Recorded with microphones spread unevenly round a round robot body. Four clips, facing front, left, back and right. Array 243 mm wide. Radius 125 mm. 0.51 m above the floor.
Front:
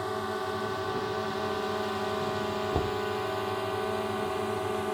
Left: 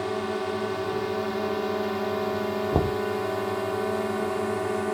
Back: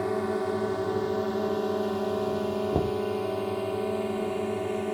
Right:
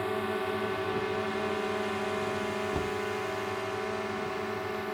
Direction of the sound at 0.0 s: 160° left.